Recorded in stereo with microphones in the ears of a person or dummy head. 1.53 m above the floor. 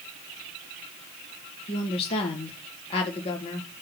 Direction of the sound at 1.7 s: 30° left (ahead or behind).